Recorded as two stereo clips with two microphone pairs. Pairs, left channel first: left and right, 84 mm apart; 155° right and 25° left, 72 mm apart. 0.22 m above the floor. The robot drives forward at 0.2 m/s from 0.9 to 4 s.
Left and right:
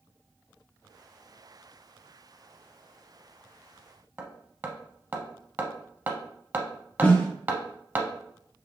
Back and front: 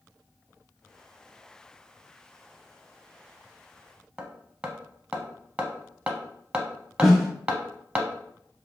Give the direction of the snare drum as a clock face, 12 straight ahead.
8 o'clock.